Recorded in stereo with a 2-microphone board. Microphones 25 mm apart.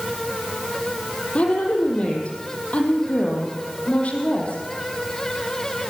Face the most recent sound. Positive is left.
turn(degrees=55)  # may be behind; listen again after turning